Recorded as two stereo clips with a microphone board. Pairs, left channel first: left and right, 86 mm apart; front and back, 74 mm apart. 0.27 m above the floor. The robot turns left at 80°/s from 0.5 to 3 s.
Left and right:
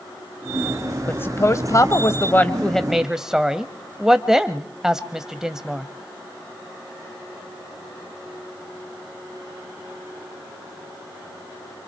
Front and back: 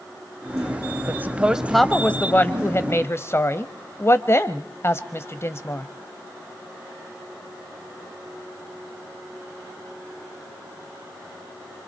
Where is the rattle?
I don't hear a rattle.